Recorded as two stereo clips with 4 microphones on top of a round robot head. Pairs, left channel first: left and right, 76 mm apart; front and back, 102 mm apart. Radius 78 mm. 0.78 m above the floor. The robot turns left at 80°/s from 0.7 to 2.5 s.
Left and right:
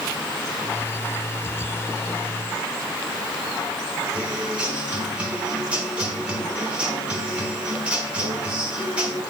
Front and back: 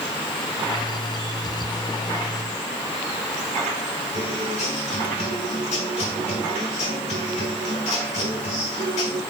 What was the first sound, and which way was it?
A guitar, 15° right.